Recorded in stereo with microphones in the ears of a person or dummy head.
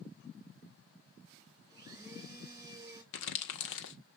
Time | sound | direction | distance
1.7 | a blender | 20° right (ahead or behind) | 2.5 m
3.1 | crumpling | 70° left (ahead or behind) | 1.4 m